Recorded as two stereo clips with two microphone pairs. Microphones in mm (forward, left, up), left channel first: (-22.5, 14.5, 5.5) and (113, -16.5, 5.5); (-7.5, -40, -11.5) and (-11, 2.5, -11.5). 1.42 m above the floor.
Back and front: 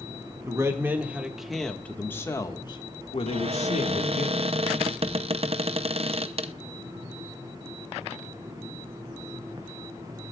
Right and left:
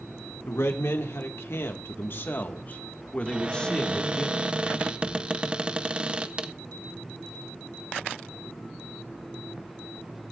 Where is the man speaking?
80° right, 2 m; by 4.3 s 165° right, 2.5 m.